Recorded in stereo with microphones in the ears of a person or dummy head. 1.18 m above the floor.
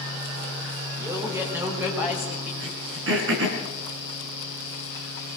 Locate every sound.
1.0 s a man speaking: 15° right (ahead or behind), 5 m; by 2.5 s 5° right (ahead or behind), 6 m
2.6 s throat clearing: 70° right (ahead or behind), 4 m